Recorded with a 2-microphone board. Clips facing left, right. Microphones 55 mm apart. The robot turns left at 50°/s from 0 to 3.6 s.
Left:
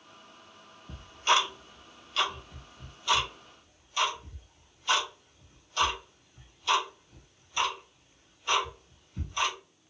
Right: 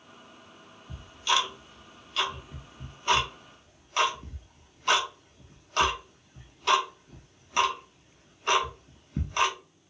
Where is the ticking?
55° left (ahead or behind), 0.7 m; by 9.6 s 65° right (ahead or behind), 0.7 m.